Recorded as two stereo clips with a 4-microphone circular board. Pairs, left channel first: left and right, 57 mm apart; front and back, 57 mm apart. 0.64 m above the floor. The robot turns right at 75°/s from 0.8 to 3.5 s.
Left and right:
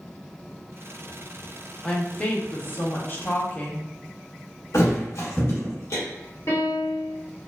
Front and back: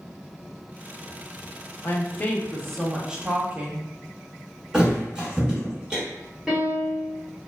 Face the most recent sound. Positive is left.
turn(degrees=105)